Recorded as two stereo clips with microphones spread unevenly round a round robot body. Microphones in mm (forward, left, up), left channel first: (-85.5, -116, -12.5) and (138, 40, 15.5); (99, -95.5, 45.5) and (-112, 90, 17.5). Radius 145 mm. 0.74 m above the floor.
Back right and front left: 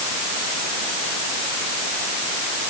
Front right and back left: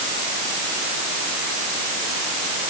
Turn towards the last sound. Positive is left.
No sound to turn to.